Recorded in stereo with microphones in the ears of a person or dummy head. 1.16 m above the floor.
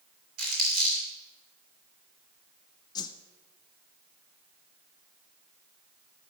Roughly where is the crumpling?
Right.